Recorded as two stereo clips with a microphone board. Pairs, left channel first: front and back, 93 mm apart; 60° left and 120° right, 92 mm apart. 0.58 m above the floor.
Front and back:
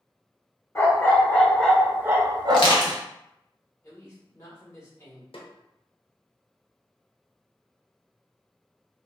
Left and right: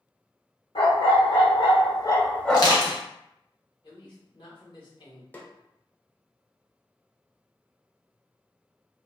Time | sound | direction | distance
0.8 | a dog barking | 60° left | 1.0 m
2.5 | crushing | 20° left | 1.0 m
3.8 | a man speaking | 50° left | 1.5 m
5.3 | a snare drum | 10° right | 0.6 m